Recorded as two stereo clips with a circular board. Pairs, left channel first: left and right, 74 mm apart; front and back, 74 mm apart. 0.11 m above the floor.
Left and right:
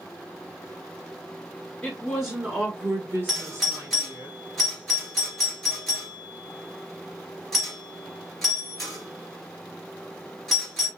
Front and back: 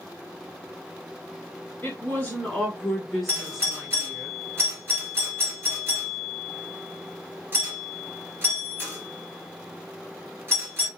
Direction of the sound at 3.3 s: 175° right.